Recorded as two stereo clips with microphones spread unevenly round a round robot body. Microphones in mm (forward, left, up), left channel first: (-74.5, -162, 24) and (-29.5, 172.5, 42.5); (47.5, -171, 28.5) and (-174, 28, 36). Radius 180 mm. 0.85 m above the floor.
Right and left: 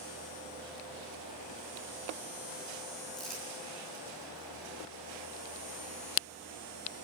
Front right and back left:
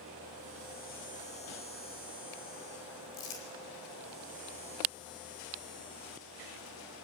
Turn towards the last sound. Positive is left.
turn(degrees=-10)